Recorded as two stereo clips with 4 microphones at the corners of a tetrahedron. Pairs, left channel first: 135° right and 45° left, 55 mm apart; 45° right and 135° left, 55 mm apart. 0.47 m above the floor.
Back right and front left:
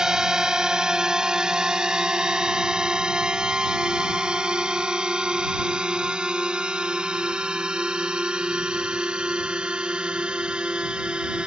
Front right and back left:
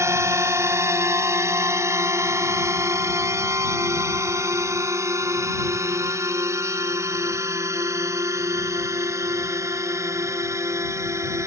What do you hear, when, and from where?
0.0 s a drone: 120° left; by 11.5 s 115° left